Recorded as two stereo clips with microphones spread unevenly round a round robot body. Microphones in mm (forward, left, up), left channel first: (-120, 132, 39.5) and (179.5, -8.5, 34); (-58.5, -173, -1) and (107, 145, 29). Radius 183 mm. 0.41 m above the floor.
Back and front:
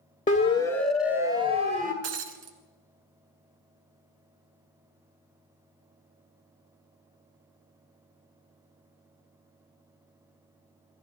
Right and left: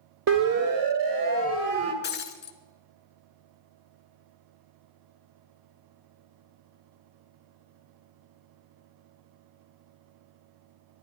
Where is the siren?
95° left, 2 m; by 1.9 s 35° left, 2.5 m.